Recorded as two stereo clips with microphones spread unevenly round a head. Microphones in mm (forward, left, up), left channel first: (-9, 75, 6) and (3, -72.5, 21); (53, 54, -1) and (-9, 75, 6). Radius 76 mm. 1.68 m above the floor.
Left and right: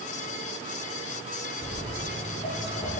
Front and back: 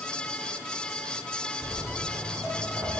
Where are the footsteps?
45° left, 2 m; by 3.0 s 50° left, 2.5 m.